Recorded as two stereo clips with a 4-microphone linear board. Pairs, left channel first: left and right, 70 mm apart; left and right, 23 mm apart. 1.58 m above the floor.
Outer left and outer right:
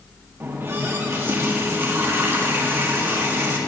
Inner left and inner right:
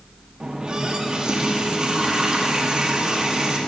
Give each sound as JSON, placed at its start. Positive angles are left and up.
{"t": 0.4, "sound": "a running tap", "side_deg": -35, "distance_m": 1.6}